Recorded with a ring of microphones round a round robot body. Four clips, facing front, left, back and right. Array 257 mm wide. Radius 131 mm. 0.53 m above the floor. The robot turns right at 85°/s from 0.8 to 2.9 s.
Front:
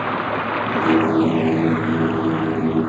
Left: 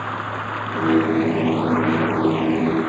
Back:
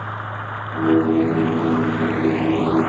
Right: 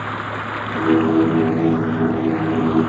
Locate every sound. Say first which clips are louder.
0.0 s running water: right 1 dB, front 7 dB; 10° right; by 2.9 s 170° left